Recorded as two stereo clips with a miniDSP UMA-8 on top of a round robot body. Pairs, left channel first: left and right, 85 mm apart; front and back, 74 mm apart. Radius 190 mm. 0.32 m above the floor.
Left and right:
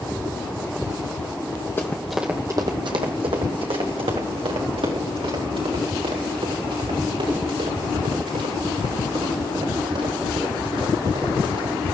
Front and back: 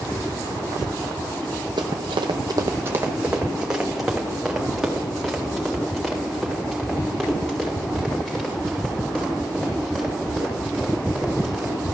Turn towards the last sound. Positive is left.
turn(degrees=-80)